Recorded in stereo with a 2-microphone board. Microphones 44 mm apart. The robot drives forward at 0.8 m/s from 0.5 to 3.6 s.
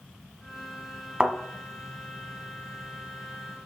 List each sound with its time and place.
1.2 s a thud: 20° right (ahead or behind), 1.3 m